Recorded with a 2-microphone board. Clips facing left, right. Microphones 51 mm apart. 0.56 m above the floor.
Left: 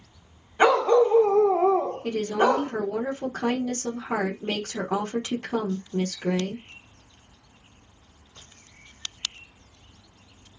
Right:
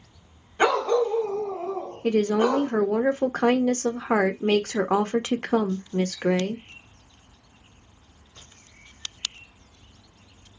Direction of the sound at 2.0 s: 45° right (ahead or behind).